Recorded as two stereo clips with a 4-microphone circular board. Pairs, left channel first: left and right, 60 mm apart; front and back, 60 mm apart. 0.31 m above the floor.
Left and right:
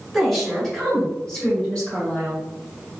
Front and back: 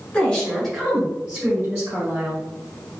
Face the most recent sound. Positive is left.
turn(degrees=145)